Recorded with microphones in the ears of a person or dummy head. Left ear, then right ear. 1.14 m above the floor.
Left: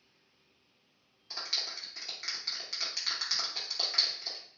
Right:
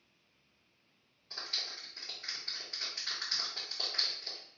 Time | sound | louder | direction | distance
1.3 | a clap | left 3 dB | 65° left (ahead or behind) | 1.2 m